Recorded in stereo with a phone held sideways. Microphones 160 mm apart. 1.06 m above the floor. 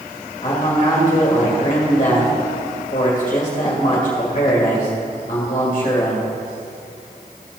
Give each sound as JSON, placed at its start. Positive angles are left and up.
{"t": 0.4, "sound": "a man speaking", "side_deg": 40, "distance_m": 2.0}